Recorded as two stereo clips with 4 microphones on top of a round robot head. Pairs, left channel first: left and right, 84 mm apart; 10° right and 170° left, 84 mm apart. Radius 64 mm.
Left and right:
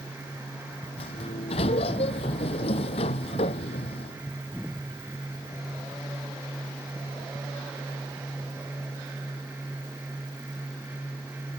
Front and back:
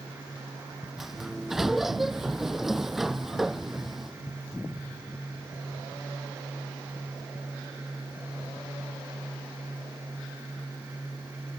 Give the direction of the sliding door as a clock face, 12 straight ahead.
9 o'clock.